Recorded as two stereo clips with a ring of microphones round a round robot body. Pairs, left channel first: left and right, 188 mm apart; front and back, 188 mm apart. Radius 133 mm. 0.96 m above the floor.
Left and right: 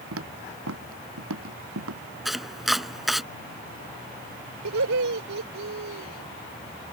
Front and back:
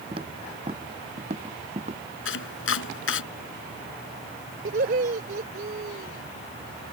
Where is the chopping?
Straight ahead.